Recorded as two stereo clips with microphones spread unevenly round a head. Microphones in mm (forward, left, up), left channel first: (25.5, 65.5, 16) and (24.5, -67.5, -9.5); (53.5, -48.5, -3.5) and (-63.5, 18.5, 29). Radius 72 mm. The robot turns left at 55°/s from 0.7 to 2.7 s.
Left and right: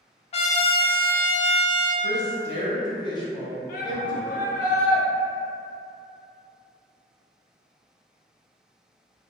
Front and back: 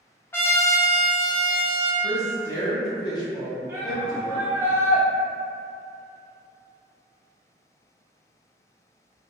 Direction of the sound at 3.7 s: 75° left.